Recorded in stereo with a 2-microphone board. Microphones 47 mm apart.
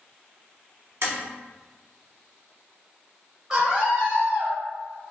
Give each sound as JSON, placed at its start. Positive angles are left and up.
{"t": 1.0, "sound": "tapping", "side_deg": -70, "distance_m": 1.0}
{"t": 3.5, "sound": "a scream", "side_deg": -15, "distance_m": 1.0}